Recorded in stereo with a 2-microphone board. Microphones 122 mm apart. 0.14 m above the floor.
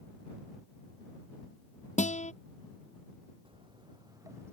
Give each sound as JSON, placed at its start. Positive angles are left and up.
{"t": 2.0, "sound": "a guitar", "side_deg": 75}
{"t": 3.5, "sound": "footsteps", "side_deg": -45}